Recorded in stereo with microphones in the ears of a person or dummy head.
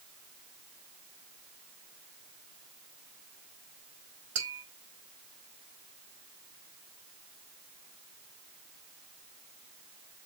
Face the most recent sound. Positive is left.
turn(degrees=-75)  # may be behind; listen again after turning